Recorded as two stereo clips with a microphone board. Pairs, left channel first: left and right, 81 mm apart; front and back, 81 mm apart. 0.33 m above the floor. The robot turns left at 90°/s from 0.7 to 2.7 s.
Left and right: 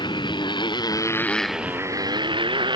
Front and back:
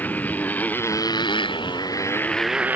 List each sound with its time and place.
0.0 s a motorcycle: 70° left; by 2.8 s 110° right